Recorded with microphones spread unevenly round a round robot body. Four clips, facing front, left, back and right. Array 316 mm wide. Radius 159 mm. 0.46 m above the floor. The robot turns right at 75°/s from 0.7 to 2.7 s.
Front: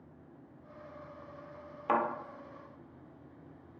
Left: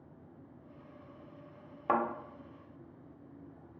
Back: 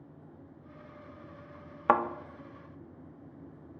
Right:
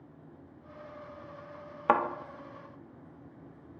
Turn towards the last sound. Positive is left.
turn(degrees=-65)